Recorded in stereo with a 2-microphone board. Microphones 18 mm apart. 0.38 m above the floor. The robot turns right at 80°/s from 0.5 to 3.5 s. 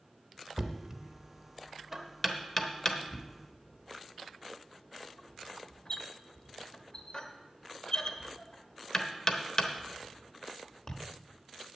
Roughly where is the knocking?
Right.